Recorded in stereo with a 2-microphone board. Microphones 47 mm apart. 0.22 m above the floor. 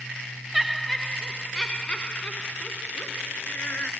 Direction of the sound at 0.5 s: 5° right (ahead or behind).